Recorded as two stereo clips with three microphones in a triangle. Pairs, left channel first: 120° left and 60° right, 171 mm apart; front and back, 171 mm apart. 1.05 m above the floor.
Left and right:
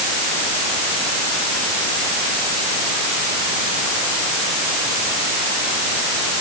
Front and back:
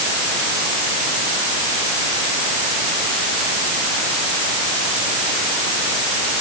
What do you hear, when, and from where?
Only background noise.